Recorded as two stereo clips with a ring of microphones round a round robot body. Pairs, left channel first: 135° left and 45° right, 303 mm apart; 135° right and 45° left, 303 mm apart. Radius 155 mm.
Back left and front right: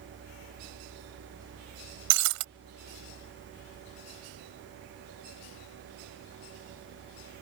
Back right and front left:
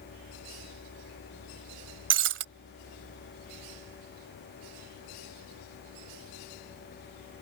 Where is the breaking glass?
10° right.